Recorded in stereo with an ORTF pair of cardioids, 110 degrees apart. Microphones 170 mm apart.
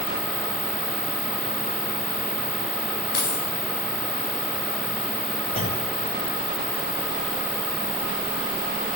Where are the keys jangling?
65° left, 6.5 m.